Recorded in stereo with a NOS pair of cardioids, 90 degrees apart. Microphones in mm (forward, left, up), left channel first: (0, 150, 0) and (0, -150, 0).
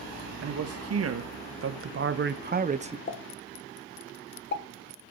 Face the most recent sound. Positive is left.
turn(degrees=35)